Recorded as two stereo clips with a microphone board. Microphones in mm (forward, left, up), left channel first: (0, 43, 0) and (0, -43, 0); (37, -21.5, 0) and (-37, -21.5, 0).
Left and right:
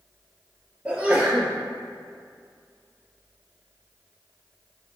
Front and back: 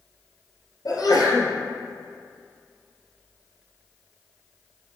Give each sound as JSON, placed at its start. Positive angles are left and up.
{"t": 0.8, "sound": "a sneeze", "azimuth_deg": -20, "distance_m": 2.5}